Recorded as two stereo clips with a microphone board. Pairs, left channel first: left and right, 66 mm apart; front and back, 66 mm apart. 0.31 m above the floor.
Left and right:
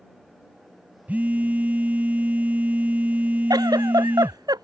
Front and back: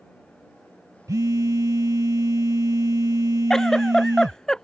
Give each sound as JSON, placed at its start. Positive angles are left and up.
{"t": 1.1, "sound": "a phone buzzing", "azimuth_deg": -150}
{"t": 3.5, "sound": "a giggle", "azimuth_deg": -80}